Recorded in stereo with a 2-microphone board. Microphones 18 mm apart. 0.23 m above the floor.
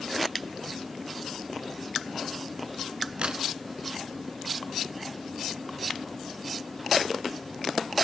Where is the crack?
65° right (ahead or behind), 1.5 m.